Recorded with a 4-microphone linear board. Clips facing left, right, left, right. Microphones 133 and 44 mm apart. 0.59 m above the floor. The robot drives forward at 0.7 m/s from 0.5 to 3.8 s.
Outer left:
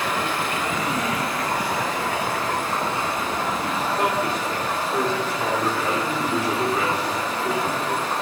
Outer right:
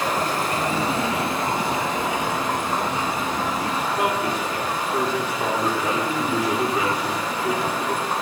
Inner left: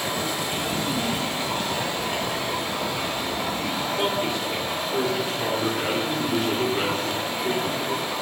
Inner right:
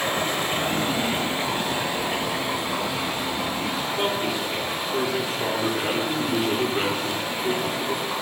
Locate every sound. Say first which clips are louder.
0.0 s running water: outer right 2 dB, inner right 2 dB; 40° right (ahead or behind), 1.2 m; by 8.2 s 15° right (ahead or behind), 3.5 m
3.9 s a man speaking: outer left 1 dB, inner left 1 dB; 10° right (ahead or behind), 1.6 m